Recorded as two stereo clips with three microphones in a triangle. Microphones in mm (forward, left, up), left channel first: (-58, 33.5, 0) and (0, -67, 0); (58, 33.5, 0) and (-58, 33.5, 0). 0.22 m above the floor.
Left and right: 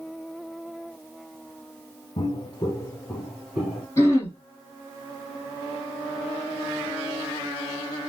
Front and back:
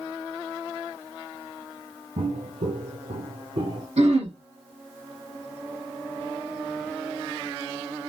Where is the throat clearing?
175° right, 2 m.